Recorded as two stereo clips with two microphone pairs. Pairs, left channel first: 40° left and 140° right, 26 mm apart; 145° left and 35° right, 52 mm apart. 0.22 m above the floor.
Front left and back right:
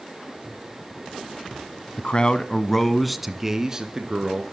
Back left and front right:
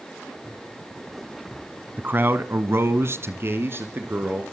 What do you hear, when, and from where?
2.0 s a man speaking: 10° left, 1.5 m; by 4.4 s 80° right, 3 m